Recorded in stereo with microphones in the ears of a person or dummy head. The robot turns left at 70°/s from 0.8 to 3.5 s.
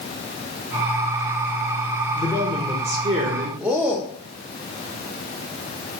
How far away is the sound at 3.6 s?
About 0.6 m.